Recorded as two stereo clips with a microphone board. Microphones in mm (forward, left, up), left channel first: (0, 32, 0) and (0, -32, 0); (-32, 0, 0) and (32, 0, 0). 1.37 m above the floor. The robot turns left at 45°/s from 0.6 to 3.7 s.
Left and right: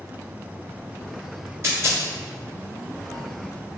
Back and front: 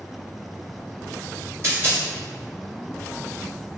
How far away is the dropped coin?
About 1.5 m.